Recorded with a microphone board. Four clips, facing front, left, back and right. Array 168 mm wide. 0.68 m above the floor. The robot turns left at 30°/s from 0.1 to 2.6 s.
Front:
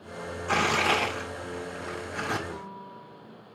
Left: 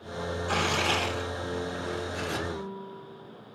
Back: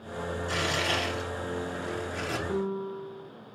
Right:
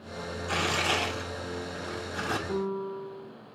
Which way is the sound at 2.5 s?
120° right.